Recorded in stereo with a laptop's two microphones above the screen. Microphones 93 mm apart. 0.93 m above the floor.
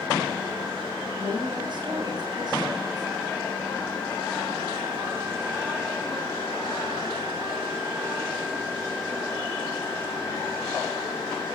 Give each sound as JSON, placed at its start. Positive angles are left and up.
{"t": 1.2, "sound": "a woman speaking", "side_deg": -55, "distance_m": 4.5}